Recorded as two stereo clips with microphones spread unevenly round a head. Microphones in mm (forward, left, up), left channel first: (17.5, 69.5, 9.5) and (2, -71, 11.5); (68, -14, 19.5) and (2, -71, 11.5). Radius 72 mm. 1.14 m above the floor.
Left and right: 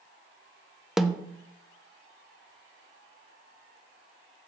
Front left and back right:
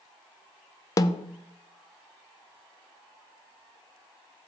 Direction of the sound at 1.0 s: 5° right.